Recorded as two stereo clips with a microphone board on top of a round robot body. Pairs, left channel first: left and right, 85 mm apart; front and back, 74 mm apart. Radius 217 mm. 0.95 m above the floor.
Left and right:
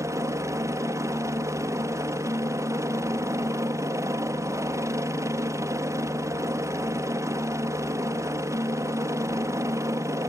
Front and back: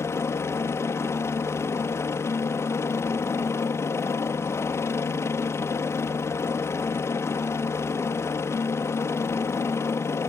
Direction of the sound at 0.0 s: 45° right.